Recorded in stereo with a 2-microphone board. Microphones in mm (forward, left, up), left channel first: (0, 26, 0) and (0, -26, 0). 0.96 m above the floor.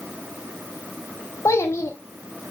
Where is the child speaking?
70° left (ahead or behind), 1.1 m.